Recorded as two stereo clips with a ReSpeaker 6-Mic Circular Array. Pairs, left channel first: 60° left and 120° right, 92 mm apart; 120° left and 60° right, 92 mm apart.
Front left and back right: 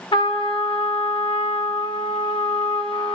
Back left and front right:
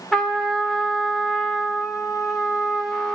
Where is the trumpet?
35° left, 1.3 m.